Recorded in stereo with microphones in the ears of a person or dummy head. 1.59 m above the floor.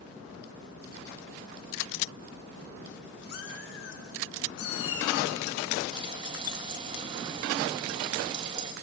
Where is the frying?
30° right (ahead or behind), 1.9 m.